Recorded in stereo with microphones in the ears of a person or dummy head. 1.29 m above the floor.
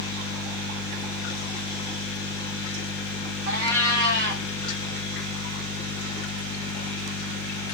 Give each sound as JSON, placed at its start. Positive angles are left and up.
{"t": 3.5, "sound": "a cat meowing", "side_deg": -60, "distance_m": 1.0}